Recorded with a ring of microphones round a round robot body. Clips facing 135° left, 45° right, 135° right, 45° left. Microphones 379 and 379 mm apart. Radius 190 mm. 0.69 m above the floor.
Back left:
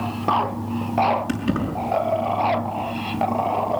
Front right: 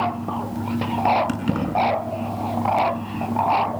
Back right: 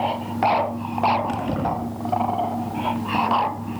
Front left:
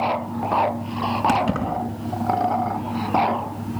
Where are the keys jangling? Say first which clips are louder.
Back left 1 dB, front left 2 dB; 35° left, 6 m.